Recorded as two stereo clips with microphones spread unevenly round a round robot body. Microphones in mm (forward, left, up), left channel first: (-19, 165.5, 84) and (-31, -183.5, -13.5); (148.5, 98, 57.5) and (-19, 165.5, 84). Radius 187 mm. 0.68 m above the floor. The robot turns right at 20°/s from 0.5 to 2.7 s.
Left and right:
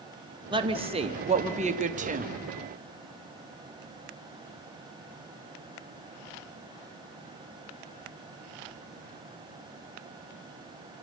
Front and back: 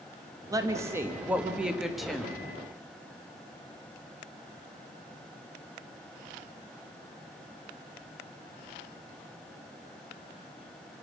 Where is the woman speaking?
130° right, 1.2 m; by 2.3 s 95° right, 1.2 m.